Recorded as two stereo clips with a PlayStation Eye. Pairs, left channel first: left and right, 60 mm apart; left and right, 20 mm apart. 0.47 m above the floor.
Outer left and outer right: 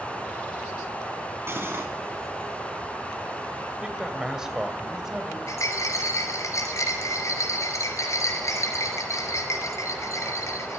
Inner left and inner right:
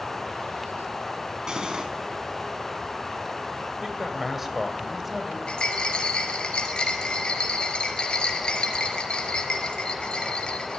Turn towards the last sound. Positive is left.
turn(degrees=60)  # may be behind; listen again after turning